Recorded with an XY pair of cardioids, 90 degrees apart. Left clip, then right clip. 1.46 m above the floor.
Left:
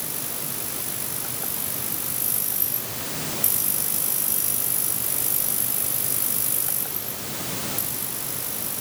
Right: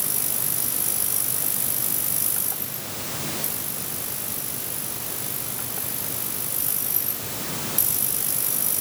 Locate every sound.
Only background noise.